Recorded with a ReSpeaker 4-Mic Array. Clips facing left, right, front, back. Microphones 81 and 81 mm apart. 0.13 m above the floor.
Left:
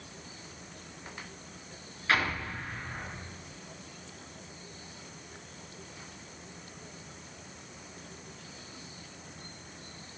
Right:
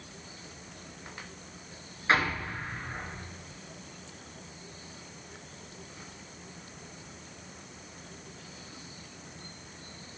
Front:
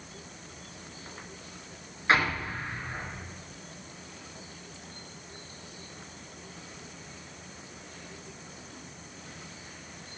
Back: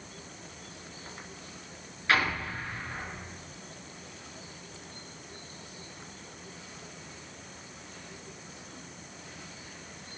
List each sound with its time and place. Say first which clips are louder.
2.1 s an explosion: right 2 dB, front 2 dB; 45° right, 1.8 m